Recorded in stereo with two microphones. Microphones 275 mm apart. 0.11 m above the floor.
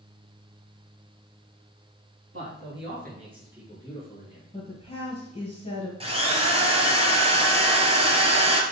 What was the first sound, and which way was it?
A man speaking, 55° right (ahead or behind).